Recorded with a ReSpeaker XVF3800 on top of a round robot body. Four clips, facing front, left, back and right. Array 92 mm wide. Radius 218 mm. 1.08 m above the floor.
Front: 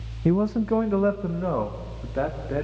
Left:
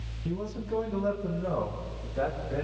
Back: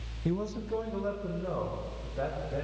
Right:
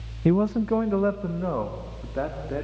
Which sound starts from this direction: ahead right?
A man speaking, at 0.2 s.